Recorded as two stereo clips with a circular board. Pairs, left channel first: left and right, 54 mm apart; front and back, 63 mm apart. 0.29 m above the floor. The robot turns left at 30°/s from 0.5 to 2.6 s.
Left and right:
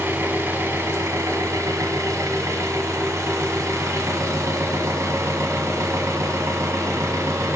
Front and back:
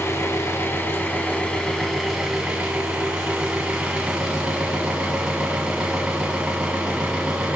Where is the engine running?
40° right, 0.9 m; by 7.6 s 105° right, 0.9 m.